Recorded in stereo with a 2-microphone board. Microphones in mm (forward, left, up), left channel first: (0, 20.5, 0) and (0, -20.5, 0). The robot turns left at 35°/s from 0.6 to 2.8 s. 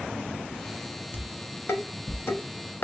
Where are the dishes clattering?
60° left (ahead or behind), 0.5 m.